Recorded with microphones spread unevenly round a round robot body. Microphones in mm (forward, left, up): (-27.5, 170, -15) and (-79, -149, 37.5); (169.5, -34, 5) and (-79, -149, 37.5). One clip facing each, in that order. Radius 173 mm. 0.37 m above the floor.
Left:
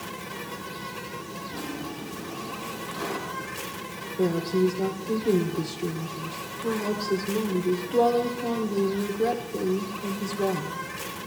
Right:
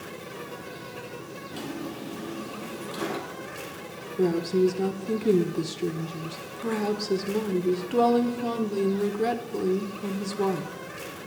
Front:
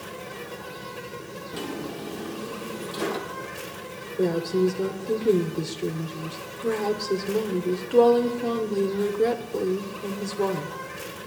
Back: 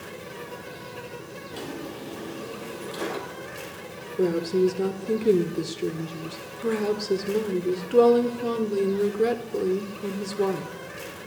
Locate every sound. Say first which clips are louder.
0.0 s an insect: even, front 1 dB; 100° left, 1.2 m
1.5 s a drawer: right 1 dB, front 3 dB; 55° right, 5 m
4.2 s a woman speaking: right 1 dB, back 1 dB; 75° right, 1.4 m